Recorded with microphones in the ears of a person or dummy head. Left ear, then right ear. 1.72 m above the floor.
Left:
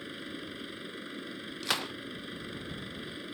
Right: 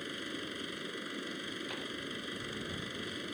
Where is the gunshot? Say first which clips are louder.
Left 8 dB; 60° left (ahead or behind).